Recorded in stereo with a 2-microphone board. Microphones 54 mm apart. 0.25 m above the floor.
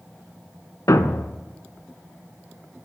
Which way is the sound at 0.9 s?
80° left.